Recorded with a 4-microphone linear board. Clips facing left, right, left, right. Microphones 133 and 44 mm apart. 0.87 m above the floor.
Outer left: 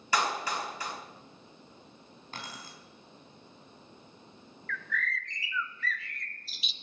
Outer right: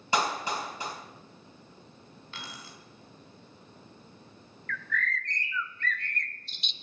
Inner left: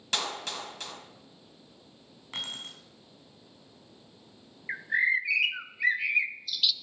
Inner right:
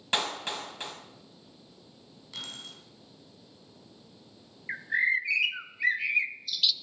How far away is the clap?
About 4 m.